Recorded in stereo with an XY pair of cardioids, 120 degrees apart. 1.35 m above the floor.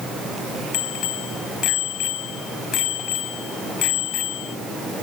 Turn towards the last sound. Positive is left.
turn(degrees=70)